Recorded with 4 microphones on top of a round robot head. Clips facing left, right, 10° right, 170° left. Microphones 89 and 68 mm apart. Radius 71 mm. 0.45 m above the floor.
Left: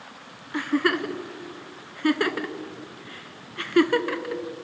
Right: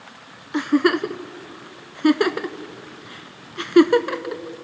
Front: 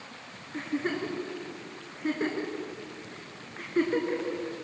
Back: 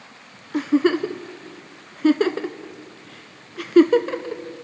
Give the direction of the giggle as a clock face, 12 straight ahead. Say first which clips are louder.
Right 5 dB, back 12 dB; 5 o'clock.